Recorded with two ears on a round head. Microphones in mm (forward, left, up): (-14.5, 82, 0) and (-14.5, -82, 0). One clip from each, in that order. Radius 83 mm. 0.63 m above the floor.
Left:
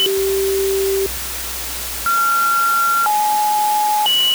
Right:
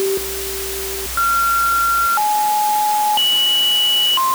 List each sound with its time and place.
Only background noise.